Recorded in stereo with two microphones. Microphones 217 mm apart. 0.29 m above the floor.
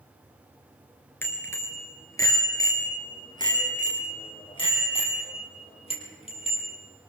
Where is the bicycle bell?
10° left (ahead or behind), 3.5 m; by 6.8 s 30° left (ahead or behind), 6.5 m.